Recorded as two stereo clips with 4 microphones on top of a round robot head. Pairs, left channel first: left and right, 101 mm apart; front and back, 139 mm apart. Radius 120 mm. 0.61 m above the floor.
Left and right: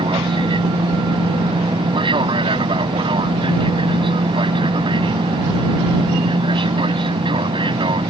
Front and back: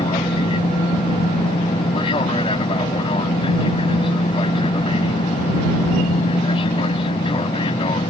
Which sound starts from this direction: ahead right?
An aircraft, at 0.0 s.